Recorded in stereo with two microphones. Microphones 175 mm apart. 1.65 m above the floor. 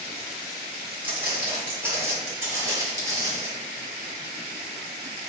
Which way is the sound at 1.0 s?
10° right (ahead or behind).